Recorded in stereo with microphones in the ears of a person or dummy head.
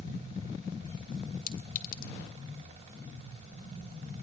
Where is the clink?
55° left (ahead or behind), 2 m.